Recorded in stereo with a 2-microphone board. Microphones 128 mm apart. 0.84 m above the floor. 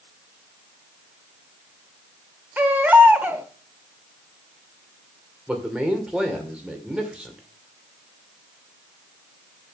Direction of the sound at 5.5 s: 10° right (ahead or behind).